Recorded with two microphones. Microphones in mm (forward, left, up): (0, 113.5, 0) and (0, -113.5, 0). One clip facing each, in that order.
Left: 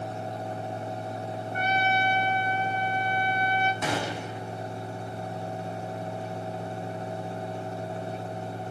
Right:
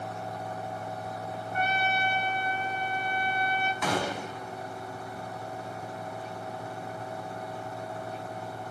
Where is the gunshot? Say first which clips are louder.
Even; 25° left (ahead or behind), 6.5 m.